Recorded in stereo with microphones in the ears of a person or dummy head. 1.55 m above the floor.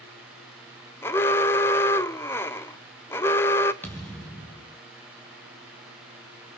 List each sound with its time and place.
1.0 s an alarm: 15° left (ahead or behind), 0.6 m
3.8 s a thud: 5° left (ahead or behind), 3 m